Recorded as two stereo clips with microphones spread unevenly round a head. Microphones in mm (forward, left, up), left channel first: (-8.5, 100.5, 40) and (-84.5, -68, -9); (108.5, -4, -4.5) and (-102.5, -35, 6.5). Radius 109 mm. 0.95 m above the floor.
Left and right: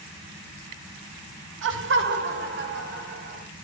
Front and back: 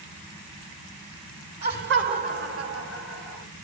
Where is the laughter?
125° right, 3 m; by 3.5 s 150° right, 5 m.